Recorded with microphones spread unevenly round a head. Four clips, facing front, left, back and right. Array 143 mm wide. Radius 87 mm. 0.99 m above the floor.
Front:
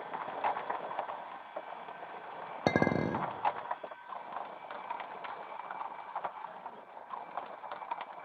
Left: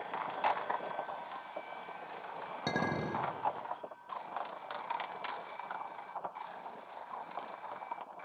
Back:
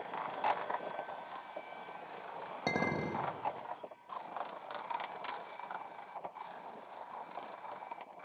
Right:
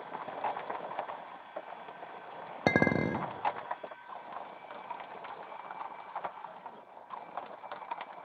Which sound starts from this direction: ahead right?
A clink, at 2.7 s.